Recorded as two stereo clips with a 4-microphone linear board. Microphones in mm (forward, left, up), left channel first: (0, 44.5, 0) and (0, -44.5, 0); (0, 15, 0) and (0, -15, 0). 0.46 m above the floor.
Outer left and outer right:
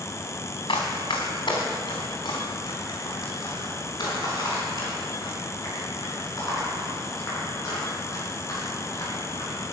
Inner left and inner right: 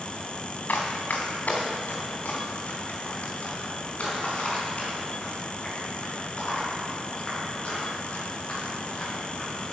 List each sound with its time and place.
0.7 s running footsteps: 70° left (ahead or behind), 2 m; by 9.6 s 40° left (ahead or behind), 11 m